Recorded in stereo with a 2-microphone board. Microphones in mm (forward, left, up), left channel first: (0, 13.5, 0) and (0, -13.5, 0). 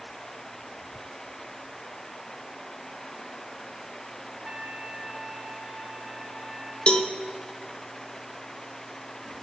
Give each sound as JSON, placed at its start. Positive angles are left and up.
{"t": 4.4, "sound": "a trumpet", "side_deg": -35, "distance_m": 1.3}
{"t": 6.9, "sound": "a cowbell", "side_deg": 45, "distance_m": 0.8}